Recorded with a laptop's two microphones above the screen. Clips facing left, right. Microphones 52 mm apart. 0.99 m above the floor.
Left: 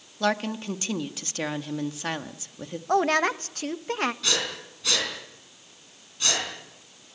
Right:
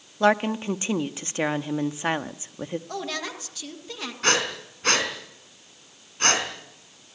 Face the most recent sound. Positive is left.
turn(degrees=-45)  # may be behind; listen again after turning